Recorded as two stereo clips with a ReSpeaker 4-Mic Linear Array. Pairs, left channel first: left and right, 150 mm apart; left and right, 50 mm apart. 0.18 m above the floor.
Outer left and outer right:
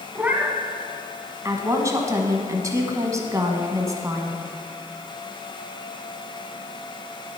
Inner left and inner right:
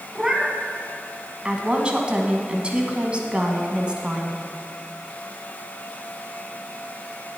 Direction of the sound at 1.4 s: 20° right (ahead or behind).